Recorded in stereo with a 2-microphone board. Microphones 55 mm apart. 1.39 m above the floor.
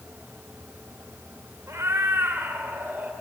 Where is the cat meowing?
60° right (ahead or behind), 1.9 m; by 3.1 s 35° right (ahead or behind), 1.9 m.